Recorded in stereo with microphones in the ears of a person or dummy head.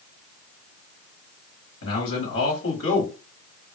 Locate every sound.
1.8 s a man speaking: 70° left (ahead or behind), 1.4 m